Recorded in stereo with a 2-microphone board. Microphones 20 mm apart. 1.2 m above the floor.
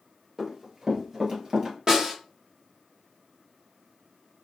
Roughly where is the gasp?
I don't hear a gasp.